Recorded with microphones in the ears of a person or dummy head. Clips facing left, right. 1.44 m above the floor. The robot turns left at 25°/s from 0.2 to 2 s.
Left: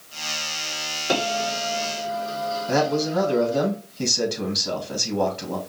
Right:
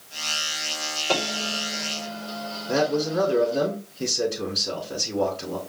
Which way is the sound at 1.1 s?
30° left (ahead or behind).